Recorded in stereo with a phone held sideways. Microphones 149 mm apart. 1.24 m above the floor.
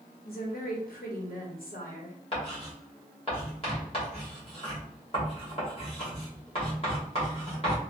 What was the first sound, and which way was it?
A woman speaking, 75° left (ahead or behind).